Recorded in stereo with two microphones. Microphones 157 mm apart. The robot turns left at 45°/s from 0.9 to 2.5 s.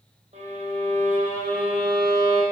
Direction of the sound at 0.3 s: 45° right.